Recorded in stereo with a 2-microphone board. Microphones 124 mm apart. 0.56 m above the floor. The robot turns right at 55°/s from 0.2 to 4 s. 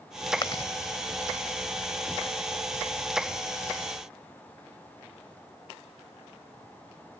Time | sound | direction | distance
0.4 | chewing | 40° left (ahead or behind) | ?